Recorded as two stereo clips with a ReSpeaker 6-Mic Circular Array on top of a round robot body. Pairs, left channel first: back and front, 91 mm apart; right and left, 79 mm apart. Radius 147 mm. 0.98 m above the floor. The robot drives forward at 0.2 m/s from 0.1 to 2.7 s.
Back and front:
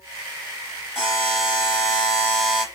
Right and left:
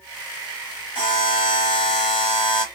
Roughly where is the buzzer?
Right.